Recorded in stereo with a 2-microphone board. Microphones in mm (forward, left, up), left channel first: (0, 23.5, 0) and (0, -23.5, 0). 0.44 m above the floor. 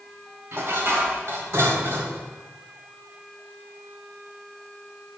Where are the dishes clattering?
65° right (ahead or behind), 1.7 m.